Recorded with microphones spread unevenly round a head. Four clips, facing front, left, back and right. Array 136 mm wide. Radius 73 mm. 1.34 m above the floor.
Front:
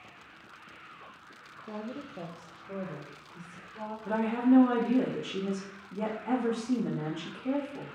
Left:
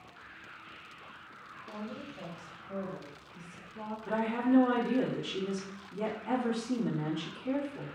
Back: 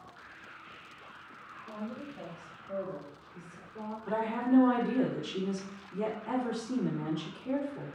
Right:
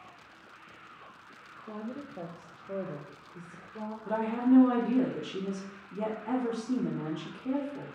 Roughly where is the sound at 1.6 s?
Ahead.